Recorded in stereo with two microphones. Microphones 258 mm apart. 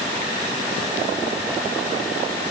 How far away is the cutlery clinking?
No cutlery clinking in this recording.